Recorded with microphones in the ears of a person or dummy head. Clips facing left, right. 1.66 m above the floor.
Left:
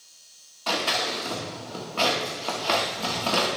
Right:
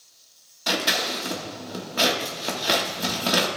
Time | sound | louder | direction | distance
0.7 | scissors | right 1 dB | 20° right (ahead or behind) | 1.3 m